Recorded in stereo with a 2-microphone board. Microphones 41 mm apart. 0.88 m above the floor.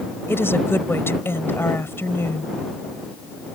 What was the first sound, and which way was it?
A woman speaking, 80° left.